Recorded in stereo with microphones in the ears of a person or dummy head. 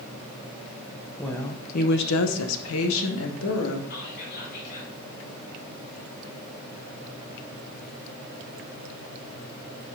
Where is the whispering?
55° left (ahead or behind), 5 m.